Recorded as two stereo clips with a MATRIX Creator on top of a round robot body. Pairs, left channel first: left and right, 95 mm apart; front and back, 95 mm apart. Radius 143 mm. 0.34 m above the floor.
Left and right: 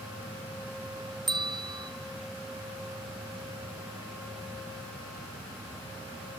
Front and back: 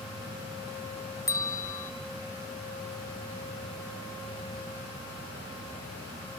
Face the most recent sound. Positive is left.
turn(degrees=-55)